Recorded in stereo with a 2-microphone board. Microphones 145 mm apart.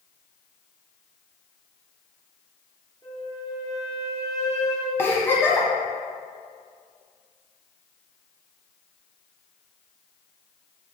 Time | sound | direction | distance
3.0 | a flute | 25° left (ahead or behind) | 1.6 m
5.0 | a giggle | 15° left (ahead or behind) | 1.3 m